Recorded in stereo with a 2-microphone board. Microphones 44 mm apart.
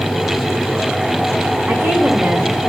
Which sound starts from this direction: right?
A woman speaking, at 1.7 s.